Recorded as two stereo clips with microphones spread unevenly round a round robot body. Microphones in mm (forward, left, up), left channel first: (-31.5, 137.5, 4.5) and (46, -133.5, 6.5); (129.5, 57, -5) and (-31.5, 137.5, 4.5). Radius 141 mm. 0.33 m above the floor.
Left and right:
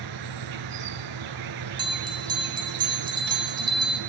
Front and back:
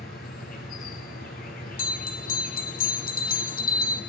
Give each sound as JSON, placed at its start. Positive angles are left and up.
{"t": 0.0, "sound": "an insect", "azimuth_deg": -85, "distance_m": 1.7}
{"t": 1.8, "sound": "a bell", "azimuth_deg": 0, "distance_m": 3.0}